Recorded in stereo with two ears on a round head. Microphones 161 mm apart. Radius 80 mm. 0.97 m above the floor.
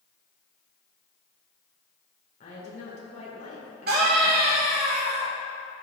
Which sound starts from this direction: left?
A woman speaking, at 2.4 s.